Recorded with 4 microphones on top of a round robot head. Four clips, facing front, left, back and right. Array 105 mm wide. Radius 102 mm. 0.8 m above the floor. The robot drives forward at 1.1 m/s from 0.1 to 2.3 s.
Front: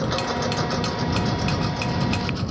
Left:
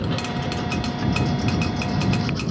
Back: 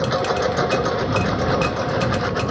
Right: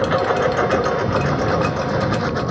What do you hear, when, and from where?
0.0 s a lawn mower: 110° right; by 2.5 s 130° right